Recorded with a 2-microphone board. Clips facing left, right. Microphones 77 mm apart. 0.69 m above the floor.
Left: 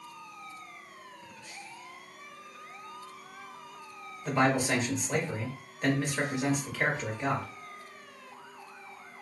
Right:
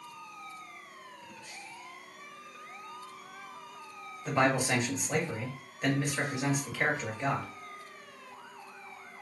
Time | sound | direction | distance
4.2 | a man speaking | 5° right (ahead or behind) | 1.0 m